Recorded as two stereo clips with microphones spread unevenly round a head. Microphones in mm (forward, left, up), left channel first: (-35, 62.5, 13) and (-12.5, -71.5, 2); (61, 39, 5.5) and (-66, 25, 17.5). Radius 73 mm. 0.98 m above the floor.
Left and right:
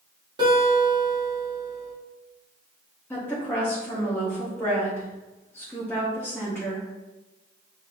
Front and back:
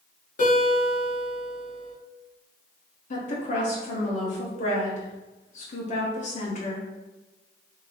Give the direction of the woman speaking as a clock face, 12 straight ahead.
11 o'clock.